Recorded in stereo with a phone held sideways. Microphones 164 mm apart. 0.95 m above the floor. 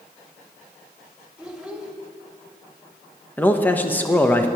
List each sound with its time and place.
1.4 s a child speaking: 5° right (ahead or behind), 2 m
3.4 s a man speaking: 10° left (ahead or behind), 1.1 m